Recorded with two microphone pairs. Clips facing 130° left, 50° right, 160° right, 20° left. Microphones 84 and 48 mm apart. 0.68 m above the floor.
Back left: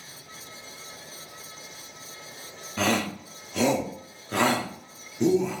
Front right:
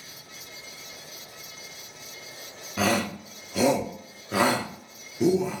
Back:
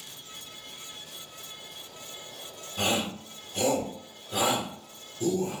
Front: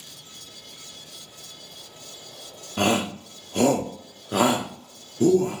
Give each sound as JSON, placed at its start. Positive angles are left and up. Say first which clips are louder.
{"t": 2.8, "sound": "a shout", "louder": "front right 1 dB, front 6 dB", "azimuth_deg": 35, "distance_m": 1.0}